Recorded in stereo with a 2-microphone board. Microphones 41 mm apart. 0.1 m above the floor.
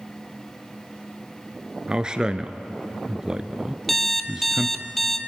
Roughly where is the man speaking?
Centre.